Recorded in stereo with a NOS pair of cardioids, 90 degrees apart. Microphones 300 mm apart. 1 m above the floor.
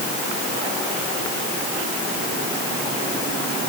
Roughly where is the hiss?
I don't hear a hiss.